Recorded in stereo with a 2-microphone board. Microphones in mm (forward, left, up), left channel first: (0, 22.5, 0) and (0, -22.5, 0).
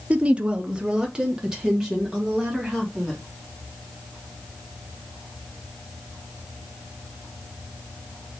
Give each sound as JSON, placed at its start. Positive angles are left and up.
{"t": 0.1, "sound": "a woman speaking", "side_deg": -30, "distance_m": 0.5}